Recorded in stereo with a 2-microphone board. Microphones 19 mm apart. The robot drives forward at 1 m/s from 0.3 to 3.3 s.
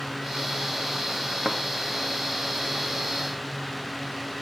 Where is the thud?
20° right (ahead or behind), 0.8 m.